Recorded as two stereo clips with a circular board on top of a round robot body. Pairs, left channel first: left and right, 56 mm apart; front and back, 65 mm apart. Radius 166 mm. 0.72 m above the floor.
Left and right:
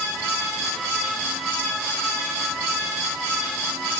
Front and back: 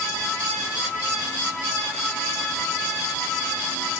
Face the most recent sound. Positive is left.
No sound to turn to.